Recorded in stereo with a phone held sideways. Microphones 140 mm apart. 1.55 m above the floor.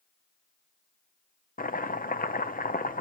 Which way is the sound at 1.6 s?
85° left.